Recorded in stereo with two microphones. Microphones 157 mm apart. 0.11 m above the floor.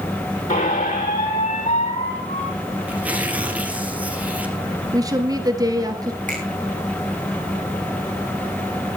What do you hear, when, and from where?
0.5 s a squeak: 55° left (ahead or behind), 3.5 m
2.9 s tearing paper: 10° right (ahead or behind), 3 m
4.9 s a woman speaking: 25° right (ahead or behind), 1.8 m
6.3 s a finger snap: 50° right (ahead or behind), 7 m